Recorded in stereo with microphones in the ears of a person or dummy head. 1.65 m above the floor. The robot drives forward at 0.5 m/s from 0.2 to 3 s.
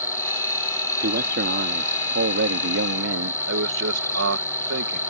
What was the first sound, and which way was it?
An insect, 15° left (ahead or behind).